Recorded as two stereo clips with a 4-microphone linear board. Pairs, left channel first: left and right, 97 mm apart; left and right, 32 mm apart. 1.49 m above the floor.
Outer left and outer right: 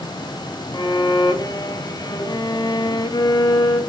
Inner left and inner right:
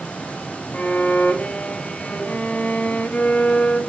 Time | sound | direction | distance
0.7 | a violin | 45° left (ahead or behind) | 1.1 m